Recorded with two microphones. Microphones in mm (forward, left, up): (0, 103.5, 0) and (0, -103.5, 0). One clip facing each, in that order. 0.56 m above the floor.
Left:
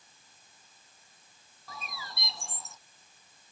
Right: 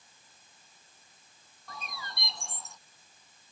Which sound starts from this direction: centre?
A bird, at 1.7 s.